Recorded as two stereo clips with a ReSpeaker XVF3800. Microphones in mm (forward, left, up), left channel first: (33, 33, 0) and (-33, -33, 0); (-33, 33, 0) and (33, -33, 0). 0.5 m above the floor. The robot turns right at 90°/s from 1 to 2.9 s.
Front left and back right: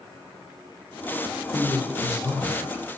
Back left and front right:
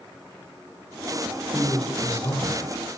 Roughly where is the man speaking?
Ahead left.